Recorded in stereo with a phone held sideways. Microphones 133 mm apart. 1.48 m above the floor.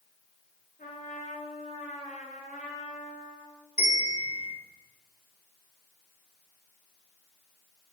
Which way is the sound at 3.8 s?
85° left.